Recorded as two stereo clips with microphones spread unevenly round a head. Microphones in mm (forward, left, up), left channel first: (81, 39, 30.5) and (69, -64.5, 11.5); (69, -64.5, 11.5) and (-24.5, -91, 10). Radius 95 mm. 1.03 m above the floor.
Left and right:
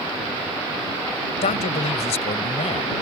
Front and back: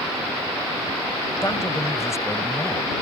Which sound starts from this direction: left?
A man speaking, at 1.4 s.